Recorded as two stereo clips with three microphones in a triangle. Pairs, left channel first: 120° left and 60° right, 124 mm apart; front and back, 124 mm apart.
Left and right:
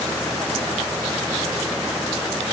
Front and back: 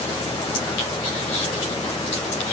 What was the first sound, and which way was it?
Only background noise.